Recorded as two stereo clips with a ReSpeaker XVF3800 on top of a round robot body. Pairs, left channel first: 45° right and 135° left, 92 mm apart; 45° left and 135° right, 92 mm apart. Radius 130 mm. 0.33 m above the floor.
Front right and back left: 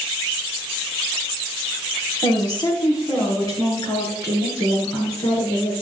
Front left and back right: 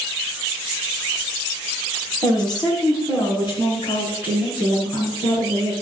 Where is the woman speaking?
Straight ahead, 4 m; by 5.7 s 15° left, 8 m.